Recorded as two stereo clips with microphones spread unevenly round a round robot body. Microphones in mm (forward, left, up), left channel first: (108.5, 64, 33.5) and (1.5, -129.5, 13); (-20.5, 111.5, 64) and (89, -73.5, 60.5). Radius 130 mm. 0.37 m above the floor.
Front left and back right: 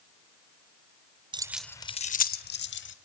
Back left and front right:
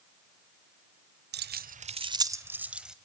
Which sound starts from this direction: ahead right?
Keys jangling, at 1.3 s.